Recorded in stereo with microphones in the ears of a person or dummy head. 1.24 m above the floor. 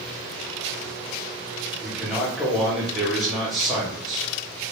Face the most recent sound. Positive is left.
turn(degrees=0)  # may be behind; listen again after turning